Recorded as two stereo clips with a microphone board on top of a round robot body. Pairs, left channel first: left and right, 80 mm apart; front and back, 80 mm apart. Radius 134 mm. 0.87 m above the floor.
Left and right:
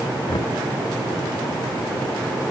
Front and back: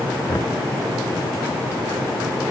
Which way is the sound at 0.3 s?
55° left.